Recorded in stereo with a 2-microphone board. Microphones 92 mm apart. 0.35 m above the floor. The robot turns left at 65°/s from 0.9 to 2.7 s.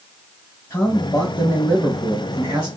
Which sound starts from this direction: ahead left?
A man speaking, at 0.7 s.